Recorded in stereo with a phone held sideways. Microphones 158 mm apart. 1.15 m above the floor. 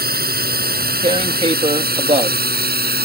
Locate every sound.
0.0 s a drone: 75° right (ahead or behind); by 3.1 s 85° right
1.0 s tearing paper: 40° right (ahead or behind)